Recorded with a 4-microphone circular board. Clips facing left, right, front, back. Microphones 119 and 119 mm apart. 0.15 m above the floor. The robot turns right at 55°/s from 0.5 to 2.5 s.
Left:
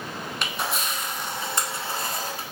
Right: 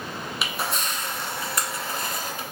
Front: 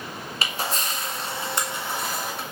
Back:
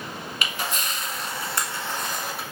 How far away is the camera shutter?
About 0.9 m.